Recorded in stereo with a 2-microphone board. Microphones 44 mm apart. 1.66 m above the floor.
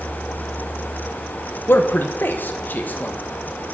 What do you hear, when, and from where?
1.7 s a man speaking: 55° left (ahead or behind), 1.0 m; by 3.2 s 40° left (ahead or behind), 1.4 m